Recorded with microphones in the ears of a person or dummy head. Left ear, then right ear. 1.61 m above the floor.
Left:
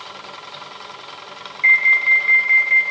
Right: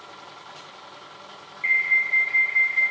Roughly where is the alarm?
Left.